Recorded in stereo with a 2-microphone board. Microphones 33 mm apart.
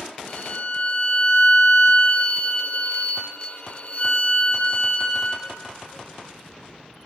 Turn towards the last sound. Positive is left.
turn(degrees=45)  # may be behind; listen again after turning